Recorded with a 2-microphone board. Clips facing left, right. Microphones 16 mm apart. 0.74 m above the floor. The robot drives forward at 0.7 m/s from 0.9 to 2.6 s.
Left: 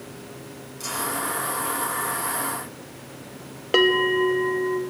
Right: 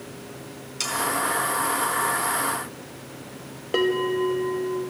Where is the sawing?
80° right, 4 m; by 0.9 s 75° right (ahead or behind), 4 m.